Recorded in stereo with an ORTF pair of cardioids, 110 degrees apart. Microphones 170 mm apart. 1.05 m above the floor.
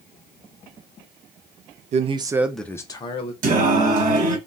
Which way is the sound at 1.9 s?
45° right.